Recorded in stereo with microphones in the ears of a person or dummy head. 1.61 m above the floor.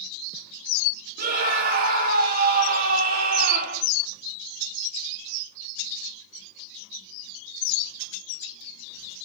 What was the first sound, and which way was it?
A scream, 50° right (ahead or behind).